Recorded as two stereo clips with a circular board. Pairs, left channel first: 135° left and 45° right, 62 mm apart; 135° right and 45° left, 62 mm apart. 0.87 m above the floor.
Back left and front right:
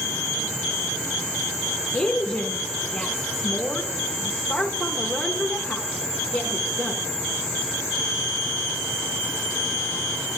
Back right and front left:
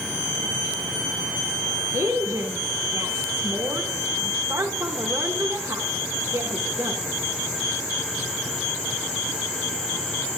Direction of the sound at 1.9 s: 65° left.